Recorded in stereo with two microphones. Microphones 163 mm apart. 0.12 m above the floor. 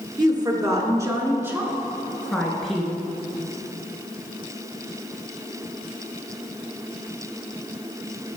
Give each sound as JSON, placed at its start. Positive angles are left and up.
{"t": 0.2, "sound": "a woman speaking", "side_deg": -25, "distance_m": 1.4}